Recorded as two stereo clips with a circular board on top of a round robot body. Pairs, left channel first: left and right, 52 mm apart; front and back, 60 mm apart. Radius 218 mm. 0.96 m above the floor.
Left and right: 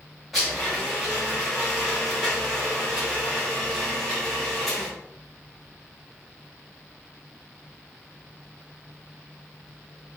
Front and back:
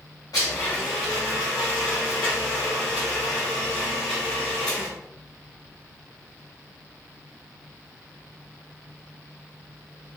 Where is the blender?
Straight ahead, 0.5 m.